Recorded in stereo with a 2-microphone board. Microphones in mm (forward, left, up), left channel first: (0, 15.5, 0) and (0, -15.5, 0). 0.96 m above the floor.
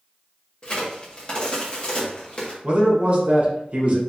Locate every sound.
0.6 s a crack: 35° left (ahead or behind), 1.2 m
2.6 s a man speaking: 40° right (ahead or behind), 1.0 m